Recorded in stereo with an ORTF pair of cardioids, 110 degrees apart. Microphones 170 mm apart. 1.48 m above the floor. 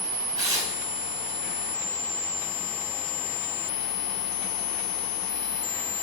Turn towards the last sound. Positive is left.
turn(degrees=-20)